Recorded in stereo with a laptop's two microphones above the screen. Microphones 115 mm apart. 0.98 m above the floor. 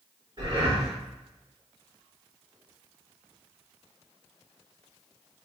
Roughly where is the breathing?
Right.